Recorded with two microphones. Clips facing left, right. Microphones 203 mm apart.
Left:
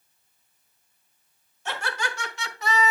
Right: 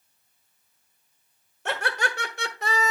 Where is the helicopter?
No helicopter in this recording.